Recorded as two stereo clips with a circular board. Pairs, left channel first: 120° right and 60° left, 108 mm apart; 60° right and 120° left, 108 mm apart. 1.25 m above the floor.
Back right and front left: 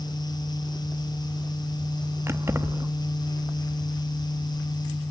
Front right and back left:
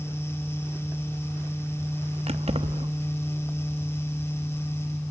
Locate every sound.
2.3 s keys jangling: 125° left, 1.1 m